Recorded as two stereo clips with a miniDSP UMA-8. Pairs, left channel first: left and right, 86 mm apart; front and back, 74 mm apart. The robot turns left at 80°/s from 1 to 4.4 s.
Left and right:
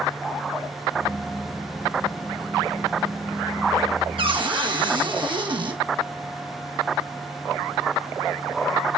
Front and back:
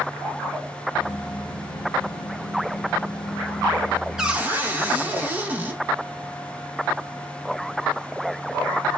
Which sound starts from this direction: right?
A cupboard door, at 4.2 s.